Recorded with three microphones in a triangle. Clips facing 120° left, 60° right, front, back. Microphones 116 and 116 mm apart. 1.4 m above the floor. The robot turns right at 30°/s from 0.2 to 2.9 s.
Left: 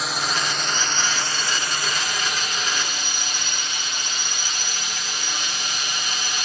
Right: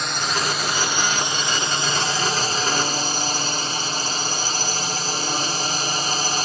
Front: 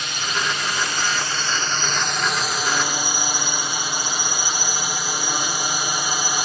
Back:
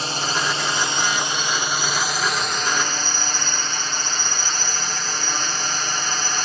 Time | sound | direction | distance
0.0 | a drone | 155° right | ?